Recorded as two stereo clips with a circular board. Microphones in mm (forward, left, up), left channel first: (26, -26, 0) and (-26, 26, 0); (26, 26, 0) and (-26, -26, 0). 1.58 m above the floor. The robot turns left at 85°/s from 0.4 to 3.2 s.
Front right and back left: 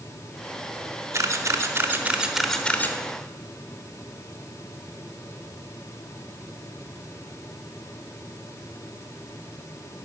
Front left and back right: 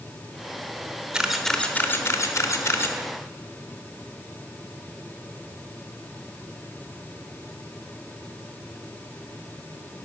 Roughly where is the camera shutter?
Behind left.